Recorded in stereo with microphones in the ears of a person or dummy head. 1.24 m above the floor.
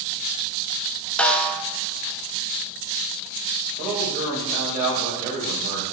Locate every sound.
1.2 s a snare drum: 5° left (ahead or behind), 0.6 m
3.8 s a man speaking: 40° right (ahead or behind), 3.5 m